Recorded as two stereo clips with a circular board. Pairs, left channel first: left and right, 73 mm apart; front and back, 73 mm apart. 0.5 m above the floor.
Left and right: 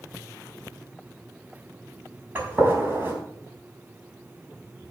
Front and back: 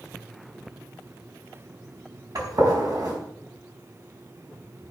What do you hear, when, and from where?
2.4 s a gunshot: 150° right, 4.5 m